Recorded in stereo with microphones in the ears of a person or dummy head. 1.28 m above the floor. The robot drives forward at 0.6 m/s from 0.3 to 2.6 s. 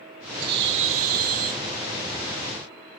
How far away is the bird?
About 0.9 m.